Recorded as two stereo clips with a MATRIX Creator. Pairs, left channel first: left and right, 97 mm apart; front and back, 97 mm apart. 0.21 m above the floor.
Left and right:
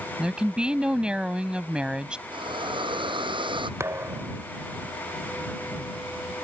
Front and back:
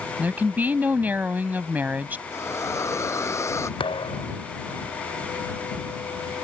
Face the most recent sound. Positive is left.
turn(degrees=-25)